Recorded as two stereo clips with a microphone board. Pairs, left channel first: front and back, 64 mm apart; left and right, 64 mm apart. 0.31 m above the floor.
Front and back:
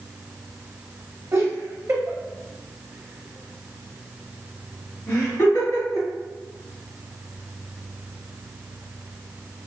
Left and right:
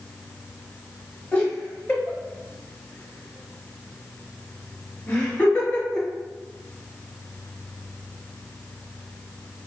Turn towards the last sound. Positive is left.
turn(degrees=15)